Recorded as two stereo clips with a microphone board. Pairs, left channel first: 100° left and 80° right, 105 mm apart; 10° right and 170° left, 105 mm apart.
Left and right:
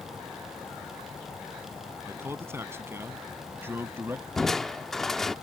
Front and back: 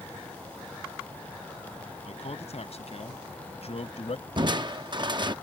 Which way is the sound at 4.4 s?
175° right.